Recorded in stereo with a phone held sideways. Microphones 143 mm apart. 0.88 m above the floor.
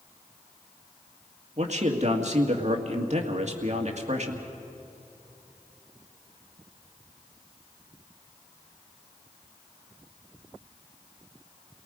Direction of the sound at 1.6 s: 50° right (ahead or behind).